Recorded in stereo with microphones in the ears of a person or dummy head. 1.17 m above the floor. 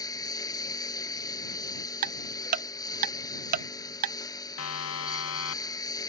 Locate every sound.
0.0 s a lawn mower: 20° left (ahead or behind)
2.0 s ticking: 35° right (ahead or behind)
4.6 s a siren: 90° left